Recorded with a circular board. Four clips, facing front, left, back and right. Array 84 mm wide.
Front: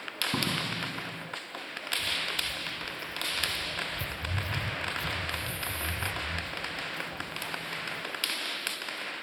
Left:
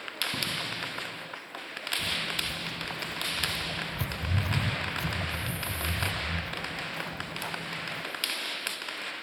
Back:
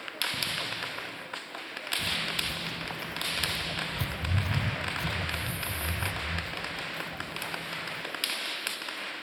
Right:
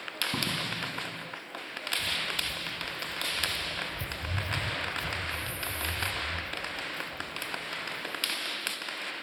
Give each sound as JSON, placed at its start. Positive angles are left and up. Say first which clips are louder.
{"t": 0.3, "sound": "a door slam", "louder": "right 4 dB, front 4 dB", "azimuth_deg": -20}
{"t": 2.0, "sound": "footsteps", "louder": "left 2 dB, back 2 dB", "azimuth_deg": 150}